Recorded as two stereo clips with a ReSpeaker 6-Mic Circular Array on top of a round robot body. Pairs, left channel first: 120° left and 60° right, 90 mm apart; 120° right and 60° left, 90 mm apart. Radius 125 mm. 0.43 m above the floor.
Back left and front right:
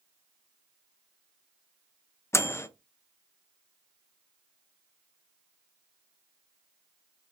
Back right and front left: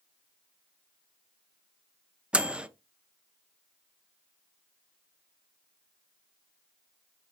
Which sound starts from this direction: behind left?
A microwave, at 2.3 s.